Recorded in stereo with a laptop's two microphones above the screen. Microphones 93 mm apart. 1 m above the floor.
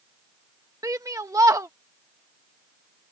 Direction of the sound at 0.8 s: 35° right (ahead or behind).